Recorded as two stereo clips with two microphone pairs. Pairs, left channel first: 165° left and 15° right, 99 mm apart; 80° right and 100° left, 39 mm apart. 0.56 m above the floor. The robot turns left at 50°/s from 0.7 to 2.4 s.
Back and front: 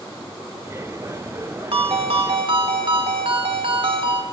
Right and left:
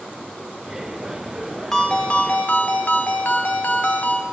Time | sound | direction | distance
1.7 | a ringtone | 5° right | 0.8 m